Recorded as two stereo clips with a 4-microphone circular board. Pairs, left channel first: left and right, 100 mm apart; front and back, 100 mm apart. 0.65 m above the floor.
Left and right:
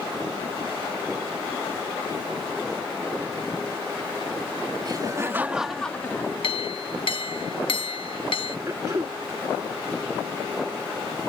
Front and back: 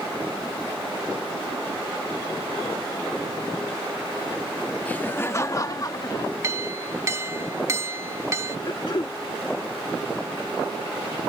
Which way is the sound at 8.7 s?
35° right.